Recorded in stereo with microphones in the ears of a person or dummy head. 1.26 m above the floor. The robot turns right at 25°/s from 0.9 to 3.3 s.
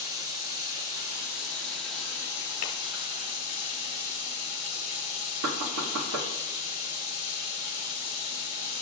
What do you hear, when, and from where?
0.0 s running water: 150° left, 3.5 m; by 8.8 s 150° right, 3.5 m
2.6 s tapping: 45° left (ahead or behind), 1.3 m
5.4 s knocking: 85° right, 1.3 m